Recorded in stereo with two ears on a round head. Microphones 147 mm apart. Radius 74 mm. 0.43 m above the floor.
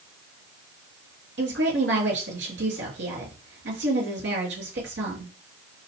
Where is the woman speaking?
80° right, 7 m.